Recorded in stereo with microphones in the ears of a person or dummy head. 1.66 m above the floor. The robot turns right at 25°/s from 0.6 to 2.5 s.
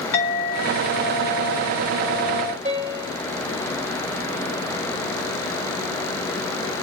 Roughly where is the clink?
Left.